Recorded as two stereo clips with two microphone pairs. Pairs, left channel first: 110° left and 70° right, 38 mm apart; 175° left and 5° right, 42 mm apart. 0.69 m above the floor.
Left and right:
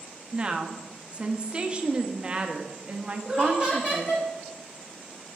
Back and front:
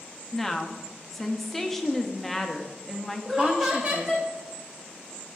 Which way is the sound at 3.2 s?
55° left.